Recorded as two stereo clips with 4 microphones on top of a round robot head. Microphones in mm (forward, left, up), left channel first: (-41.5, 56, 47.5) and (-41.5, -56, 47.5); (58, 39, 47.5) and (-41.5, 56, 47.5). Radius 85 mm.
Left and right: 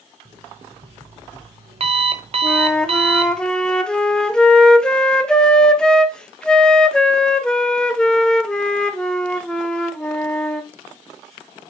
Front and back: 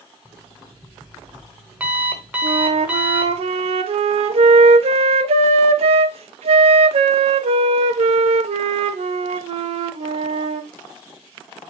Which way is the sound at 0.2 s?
110° right.